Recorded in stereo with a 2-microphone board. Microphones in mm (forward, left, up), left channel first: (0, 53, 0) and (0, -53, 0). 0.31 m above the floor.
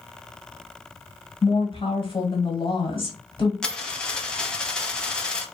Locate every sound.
1.4 s a woman speaking: 50° left (ahead or behind), 1.4 m
3.6 s a dropped coin: 10° left (ahead or behind), 0.7 m